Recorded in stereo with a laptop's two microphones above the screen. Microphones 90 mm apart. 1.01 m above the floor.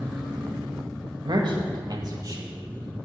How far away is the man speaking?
About 1.4 m.